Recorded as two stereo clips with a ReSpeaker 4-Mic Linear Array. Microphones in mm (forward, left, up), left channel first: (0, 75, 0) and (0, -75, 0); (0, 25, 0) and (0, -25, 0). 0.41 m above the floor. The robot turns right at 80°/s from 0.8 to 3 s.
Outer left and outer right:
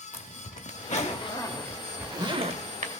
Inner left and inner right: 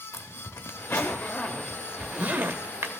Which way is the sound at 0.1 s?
55° left (ahead or behind).